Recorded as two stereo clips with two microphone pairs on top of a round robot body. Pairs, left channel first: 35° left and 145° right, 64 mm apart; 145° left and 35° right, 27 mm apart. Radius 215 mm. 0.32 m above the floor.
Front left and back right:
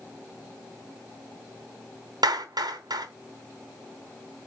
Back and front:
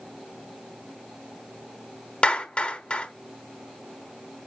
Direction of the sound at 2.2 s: 160° right.